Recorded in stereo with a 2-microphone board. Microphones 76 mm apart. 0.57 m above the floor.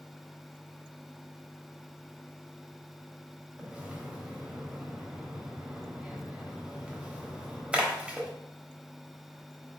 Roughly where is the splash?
Centre.